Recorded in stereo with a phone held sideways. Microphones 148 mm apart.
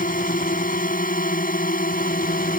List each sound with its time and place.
0.0 s a drone: 70° left (ahead or behind); by 2.6 s 75° left (ahead or behind)